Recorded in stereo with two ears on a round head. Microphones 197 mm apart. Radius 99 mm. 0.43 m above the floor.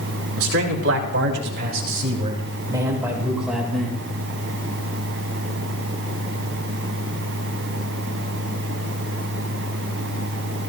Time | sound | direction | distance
0.4 | a man speaking | 70° right (ahead or behind) | 3 m